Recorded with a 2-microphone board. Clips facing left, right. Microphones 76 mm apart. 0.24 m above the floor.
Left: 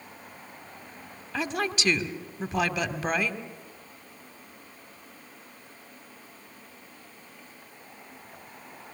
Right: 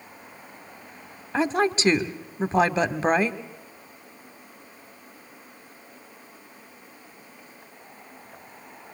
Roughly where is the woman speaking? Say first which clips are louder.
Right 7 dB; right.